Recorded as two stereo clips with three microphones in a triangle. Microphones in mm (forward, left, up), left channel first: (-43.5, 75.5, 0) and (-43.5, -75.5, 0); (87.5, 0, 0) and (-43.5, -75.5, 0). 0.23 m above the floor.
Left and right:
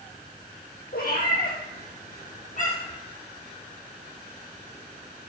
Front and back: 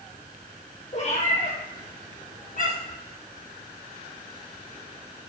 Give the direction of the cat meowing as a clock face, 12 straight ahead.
10 o'clock.